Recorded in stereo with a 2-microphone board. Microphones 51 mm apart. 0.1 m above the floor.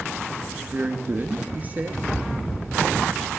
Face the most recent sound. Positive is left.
turn(degrees=-30)  # may be behind; listen again after turning